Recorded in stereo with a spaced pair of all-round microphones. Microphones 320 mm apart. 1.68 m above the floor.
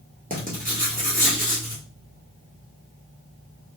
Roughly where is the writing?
Right.